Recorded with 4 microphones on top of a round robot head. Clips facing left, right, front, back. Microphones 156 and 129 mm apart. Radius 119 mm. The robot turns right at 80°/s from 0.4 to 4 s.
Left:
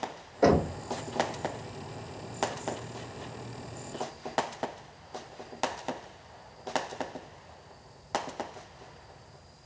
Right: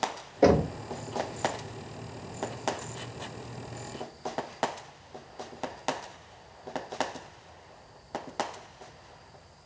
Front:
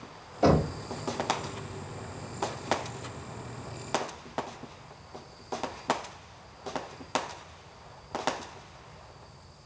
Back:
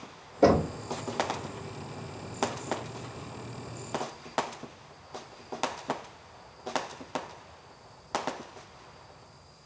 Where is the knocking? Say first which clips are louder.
Right 2 dB, back 2 dB; 155° right, 2 m; by 0.8 s 125° right, 2 m.